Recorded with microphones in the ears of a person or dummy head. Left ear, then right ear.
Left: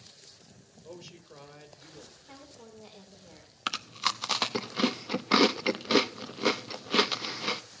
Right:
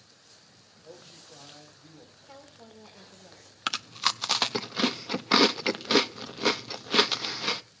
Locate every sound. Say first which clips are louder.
0.8 s a man speaking: left 1 dB; 55° left (ahead or behind), 6 m
2.2 s a woman speaking: even; 5° left (ahead or behind), 3.5 m
3.7 s chewing: right 2 dB; 15° right (ahead or behind), 0.6 m